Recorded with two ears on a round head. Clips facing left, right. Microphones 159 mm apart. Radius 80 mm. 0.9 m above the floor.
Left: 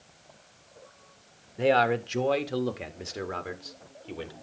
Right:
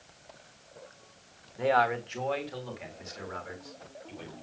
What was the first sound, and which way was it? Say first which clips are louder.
A man speaking: left 3 dB; 30° left (ahead or behind).